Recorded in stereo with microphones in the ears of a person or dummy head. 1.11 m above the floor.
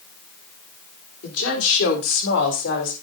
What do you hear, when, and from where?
1.2 s a woman speaking: 80° left, 3.5 m; by 2.9 s 75° left (ahead or behind), 5 m